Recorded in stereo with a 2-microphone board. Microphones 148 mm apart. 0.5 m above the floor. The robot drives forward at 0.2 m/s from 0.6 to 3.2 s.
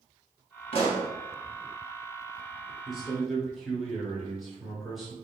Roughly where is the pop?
Left.